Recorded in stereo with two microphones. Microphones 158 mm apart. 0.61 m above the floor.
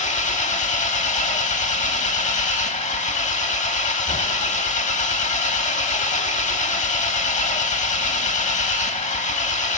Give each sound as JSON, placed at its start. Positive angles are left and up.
{"t": 0.0, "sound": "an engine running", "side_deg": 50, "distance_m": 0.7}